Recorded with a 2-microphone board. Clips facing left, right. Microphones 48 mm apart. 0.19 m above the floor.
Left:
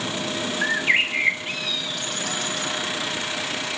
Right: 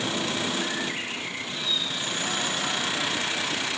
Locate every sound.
0.6 s a bird: 60° left (ahead or behind), 3 m